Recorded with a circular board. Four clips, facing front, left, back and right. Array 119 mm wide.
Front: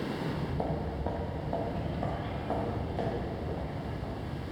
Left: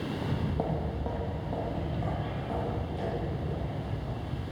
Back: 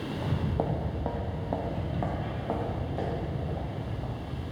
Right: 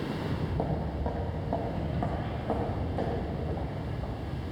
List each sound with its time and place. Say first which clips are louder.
0.2 s footsteps: even, back 3 dB; 160° left, 1.4 m; by 4.5 s 130° right, 4 m